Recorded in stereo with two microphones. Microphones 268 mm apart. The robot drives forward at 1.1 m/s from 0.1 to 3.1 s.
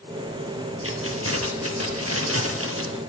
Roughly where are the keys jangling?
Right.